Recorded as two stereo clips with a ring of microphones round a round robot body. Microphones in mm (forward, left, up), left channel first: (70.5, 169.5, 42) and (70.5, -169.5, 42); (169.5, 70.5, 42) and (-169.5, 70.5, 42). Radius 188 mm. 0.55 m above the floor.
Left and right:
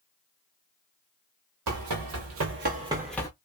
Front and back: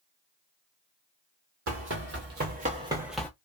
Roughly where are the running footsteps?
Behind right.